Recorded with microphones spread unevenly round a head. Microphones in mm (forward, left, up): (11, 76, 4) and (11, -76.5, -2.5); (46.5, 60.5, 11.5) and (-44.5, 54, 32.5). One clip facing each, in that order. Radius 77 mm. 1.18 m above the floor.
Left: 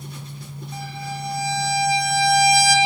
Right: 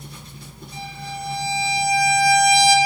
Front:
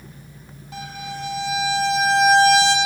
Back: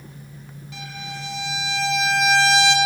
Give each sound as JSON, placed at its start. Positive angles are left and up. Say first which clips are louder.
{"t": 0.7, "sound": "a violin", "louder": "left 1 dB, front 4 dB", "azimuth_deg": 60, "distance_m": 6.5}